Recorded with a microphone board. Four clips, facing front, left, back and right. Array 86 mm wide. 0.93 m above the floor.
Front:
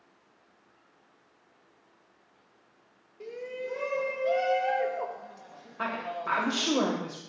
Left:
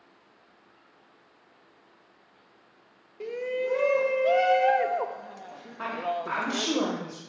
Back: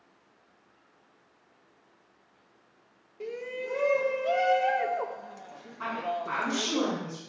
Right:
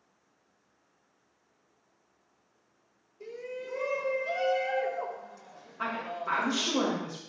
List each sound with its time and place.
3.2 s a shout: 105° left, 0.8 m
5.8 s a woman speaking: 15° left, 2.5 m